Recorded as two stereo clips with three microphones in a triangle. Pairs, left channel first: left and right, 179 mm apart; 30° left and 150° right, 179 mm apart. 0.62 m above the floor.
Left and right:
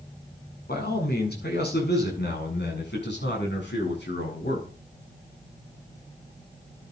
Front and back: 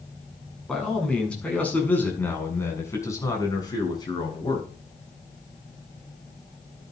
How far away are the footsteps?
I don't hear footsteps.